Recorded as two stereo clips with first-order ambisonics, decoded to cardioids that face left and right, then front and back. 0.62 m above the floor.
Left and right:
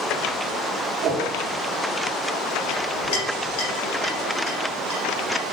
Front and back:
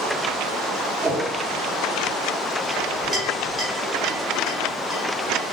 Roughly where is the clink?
Left.